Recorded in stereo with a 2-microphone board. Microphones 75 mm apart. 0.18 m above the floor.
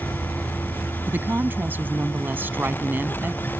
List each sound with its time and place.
0.0 s an insect: 30° right (ahead or behind)
1.1 s a woman speaking: 30° right (ahead or behind)